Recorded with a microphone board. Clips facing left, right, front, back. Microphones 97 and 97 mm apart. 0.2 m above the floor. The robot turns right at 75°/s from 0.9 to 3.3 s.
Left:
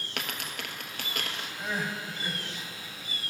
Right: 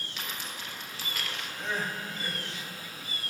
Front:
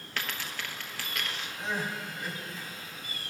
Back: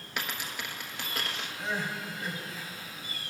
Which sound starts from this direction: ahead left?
Crying, at 1.6 s.